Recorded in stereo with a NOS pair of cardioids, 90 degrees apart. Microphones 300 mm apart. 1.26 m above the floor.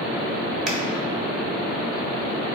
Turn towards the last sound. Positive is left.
turn(degrees=-5)